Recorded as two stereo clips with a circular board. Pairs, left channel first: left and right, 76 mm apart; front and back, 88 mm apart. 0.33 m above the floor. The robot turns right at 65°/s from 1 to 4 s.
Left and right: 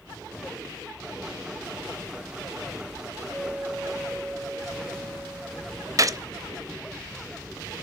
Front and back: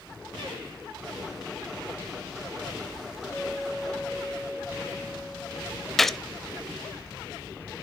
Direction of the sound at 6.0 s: 85° right.